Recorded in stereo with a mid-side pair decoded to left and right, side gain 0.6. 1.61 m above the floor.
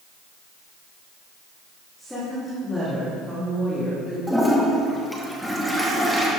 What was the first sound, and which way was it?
A woman speaking, straight ahead.